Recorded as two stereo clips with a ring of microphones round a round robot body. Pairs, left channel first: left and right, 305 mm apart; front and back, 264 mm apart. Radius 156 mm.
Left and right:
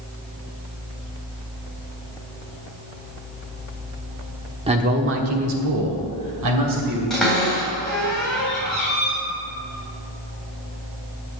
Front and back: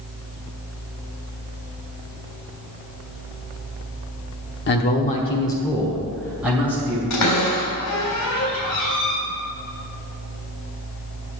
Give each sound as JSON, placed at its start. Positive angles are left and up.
{"t": 4.7, "sound": "a man speaking", "azimuth_deg": -25, "distance_m": 1.2}
{"t": 7.1, "sound": "a cupboard door", "azimuth_deg": 0, "distance_m": 3.5}